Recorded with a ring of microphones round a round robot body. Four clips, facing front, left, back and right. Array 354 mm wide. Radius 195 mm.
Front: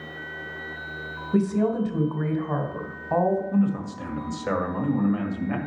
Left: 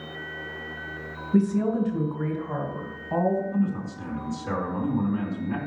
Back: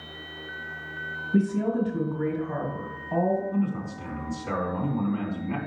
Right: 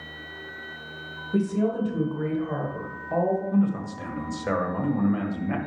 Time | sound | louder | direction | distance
1.3 | a woman speaking | left 2 dB, front 2 dB | straight ahead | 2 m
3.5 | a man speaking | right 3 dB, front 4 dB | 45° right | 1.9 m